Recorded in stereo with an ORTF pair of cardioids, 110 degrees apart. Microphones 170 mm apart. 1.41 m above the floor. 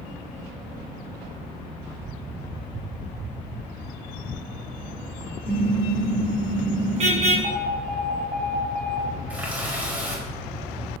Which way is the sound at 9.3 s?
10° right.